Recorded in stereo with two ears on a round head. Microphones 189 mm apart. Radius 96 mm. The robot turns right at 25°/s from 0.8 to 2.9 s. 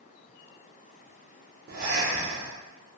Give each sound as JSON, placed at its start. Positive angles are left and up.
{"t": 1.7, "sound": "breathing", "side_deg": -40, "distance_m": 0.5}